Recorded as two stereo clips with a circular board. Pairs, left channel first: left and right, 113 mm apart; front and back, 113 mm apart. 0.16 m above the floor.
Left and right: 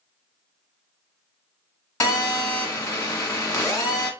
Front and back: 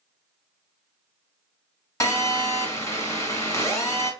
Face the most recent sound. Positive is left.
turn(degrees=40)